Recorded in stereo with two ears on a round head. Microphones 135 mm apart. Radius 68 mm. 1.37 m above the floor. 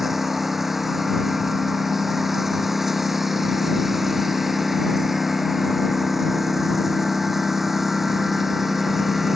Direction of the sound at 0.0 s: Centre (ahead or behind).